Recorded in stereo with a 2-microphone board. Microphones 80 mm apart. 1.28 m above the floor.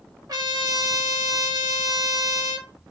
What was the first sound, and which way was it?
A trumpet, 50° right (ahead or behind).